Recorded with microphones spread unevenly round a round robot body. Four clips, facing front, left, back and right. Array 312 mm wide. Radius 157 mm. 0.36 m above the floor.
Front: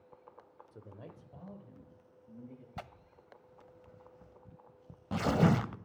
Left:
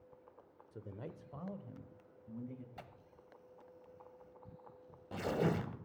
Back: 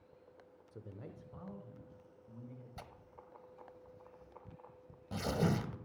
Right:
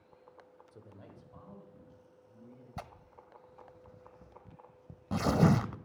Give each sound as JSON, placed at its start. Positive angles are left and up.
{"t": 0.7, "sound": "a man speaking", "azimuth_deg": 125, "distance_m": 0.9}
{"t": 2.8, "sound": "tearing paper", "azimuth_deg": -50, "distance_m": 0.7}